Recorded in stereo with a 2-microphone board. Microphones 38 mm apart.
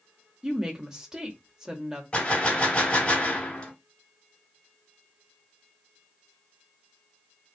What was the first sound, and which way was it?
A woman speaking, 20° right (ahead or behind).